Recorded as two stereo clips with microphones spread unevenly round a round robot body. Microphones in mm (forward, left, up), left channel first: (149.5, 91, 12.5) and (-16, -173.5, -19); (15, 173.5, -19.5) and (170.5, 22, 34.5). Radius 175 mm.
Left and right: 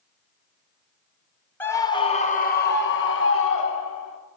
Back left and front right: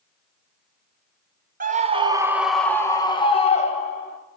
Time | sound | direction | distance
1.6 | a scream | 30° right | 1.0 m